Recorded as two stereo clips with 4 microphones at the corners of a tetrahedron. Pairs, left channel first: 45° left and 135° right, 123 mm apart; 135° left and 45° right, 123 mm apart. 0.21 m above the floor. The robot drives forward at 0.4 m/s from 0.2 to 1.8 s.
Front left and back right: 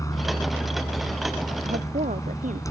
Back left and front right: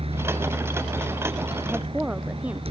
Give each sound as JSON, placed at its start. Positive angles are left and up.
{"t": 0.0, "sound": "a helicopter", "azimuth_deg": -15}
{"t": 1.6, "sound": "a woman speaking", "azimuth_deg": -125}